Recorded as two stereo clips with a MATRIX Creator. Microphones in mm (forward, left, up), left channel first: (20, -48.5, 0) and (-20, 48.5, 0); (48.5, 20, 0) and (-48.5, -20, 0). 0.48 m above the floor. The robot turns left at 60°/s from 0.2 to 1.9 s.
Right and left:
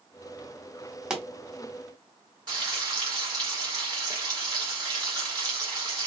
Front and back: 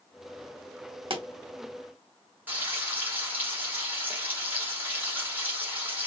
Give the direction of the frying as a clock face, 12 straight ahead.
7 o'clock.